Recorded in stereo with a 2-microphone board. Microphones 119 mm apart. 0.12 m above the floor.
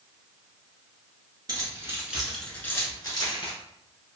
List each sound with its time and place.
1.5 s keys jangling: 35° right (ahead or behind), 1.0 m; by 3.5 s 45° left (ahead or behind), 1.2 m